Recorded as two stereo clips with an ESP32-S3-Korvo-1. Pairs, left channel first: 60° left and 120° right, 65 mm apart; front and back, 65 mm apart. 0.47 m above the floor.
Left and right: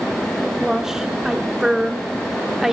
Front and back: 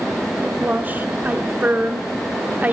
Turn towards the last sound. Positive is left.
turn(degrees=165)